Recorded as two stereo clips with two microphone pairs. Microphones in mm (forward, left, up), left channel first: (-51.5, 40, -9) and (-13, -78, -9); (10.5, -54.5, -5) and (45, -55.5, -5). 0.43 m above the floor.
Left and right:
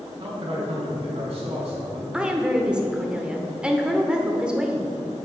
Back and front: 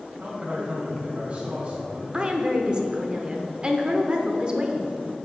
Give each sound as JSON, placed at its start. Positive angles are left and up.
{"t": 0.2, "sound": "a man speaking", "azimuth_deg": -60, "distance_m": 2.5}
{"t": 2.1, "sound": "a woman speaking", "azimuth_deg": 0, "distance_m": 0.9}